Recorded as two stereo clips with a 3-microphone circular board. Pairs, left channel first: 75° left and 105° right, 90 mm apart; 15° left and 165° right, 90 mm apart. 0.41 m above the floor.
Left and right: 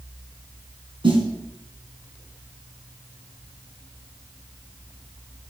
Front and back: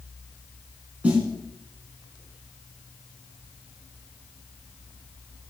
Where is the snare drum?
90° right, 3.5 m.